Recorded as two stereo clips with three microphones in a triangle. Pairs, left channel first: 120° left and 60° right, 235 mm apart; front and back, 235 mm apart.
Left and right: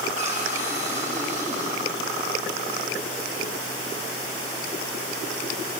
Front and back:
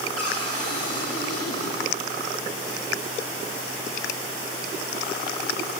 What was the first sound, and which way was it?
A cupboard door, straight ahead.